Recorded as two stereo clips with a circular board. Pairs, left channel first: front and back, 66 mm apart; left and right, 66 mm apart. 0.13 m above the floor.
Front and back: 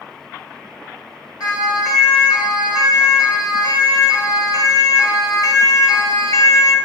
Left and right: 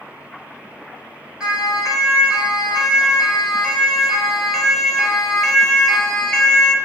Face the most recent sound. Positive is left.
turn(degrees=20)